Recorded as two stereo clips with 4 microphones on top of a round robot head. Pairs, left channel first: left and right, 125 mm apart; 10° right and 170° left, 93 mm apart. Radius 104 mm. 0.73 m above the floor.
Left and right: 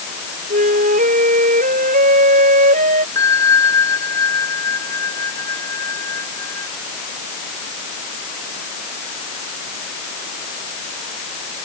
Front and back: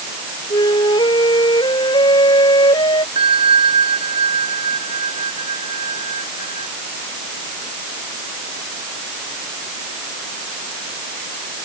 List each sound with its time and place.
0.5 s a flute: 65° right
3.1 s a bell: 155° left